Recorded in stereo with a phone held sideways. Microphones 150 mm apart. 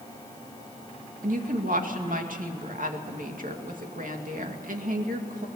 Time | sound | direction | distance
1.2 | a woman speaking | 65° right (ahead or behind) | 2.5 m